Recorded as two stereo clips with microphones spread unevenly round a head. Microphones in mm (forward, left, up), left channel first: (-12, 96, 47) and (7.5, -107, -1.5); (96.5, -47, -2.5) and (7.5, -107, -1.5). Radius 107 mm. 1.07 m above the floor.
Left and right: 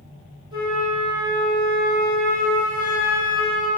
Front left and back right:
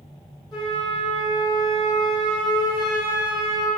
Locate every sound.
0.5 s a flute: 10° right, 1.8 m